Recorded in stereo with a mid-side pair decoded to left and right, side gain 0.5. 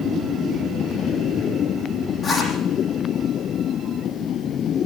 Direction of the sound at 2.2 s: 45° left.